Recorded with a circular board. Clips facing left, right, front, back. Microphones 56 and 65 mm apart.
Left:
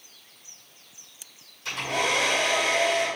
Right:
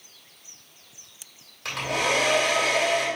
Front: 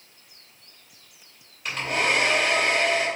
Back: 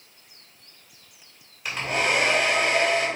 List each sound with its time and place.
1.6 s a hair dryer: 95° right, 3 m